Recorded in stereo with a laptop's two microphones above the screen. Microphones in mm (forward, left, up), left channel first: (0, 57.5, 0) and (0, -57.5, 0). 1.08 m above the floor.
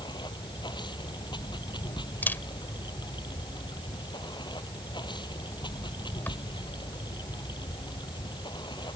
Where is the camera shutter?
15° left (ahead or behind).